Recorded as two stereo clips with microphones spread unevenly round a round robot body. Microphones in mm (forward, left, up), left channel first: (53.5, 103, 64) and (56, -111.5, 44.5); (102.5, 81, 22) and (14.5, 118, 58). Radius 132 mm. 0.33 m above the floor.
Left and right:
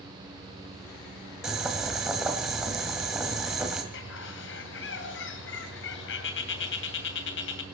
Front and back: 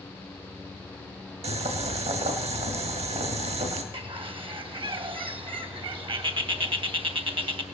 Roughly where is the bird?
Behind left.